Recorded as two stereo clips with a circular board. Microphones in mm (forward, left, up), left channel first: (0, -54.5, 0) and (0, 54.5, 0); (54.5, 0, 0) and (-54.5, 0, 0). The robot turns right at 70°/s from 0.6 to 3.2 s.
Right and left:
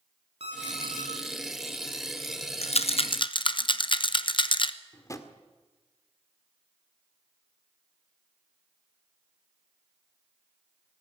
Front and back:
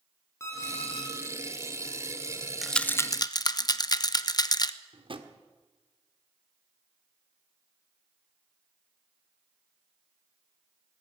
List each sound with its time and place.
0.4 s an alarm clock: 65° left, 7.5 m; by 1.1 s 100° left, 7.5 m
2.6 s a rattle: 95° right, 0.8 m; by 4.7 s 50° right, 0.8 m
4.9 s a drawer: 145° right, 1.5 m